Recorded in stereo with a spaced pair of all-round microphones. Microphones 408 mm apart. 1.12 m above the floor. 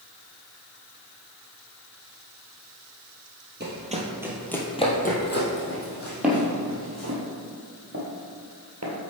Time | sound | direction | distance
3.6 | running footsteps | 25° right (ahead or behind) | 1.2 m
6.2 | footsteps | 5° right (ahead or behind) | 1.7 m